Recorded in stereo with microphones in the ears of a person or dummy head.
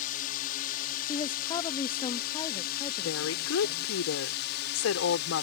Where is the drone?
45° left (ahead or behind); by 5.4 s 60° left (ahead or behind).